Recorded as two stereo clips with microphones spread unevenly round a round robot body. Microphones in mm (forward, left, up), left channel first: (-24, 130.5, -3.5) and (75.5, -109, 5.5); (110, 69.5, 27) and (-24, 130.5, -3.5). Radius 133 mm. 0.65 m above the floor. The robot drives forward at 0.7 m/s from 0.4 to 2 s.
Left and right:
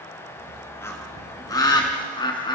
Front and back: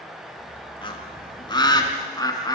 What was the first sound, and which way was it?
A bird, 30° left.